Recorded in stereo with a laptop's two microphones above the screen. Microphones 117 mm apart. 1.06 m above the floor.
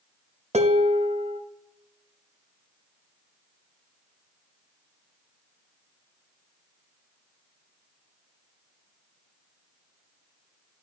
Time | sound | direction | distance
0.5 | dishes clattering | 65° right (ahead or behind) | 0.7 m